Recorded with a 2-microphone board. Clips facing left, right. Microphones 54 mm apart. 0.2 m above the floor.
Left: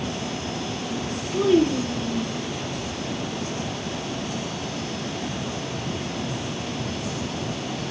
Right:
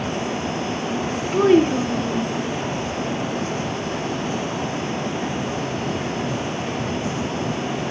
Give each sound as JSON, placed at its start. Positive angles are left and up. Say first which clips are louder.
{"t": 1.3, "sound": "a child speaking", "louder": "right 4 dB", "side_deg": -50, "distance_m": 1.0}